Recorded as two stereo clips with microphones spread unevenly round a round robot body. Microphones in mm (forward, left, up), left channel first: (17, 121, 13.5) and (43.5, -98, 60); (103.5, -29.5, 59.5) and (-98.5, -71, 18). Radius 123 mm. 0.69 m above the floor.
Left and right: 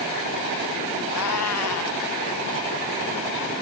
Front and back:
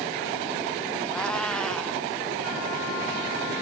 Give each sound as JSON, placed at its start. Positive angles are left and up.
{"t": 1.1, "sound": "a cat meowing", "azimuth_deg": 100}